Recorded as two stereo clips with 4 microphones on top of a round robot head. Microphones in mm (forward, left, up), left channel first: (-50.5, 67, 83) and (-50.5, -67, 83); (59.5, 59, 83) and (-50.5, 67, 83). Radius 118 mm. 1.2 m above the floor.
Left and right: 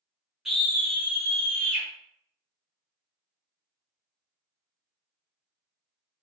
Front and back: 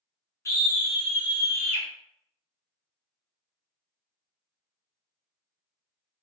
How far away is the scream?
About 0.6 m.